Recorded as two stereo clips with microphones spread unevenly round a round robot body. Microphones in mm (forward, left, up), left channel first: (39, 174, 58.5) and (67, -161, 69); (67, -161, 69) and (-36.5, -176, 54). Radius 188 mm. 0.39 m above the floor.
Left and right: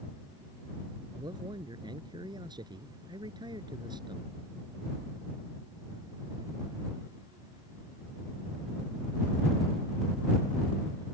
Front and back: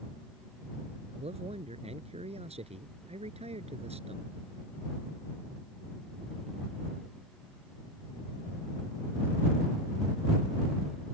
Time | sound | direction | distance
1.1 | a man speaking | 165° right | ?